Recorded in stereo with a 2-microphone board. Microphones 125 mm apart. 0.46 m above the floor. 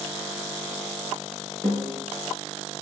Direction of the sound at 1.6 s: 20° left (ahead or behind).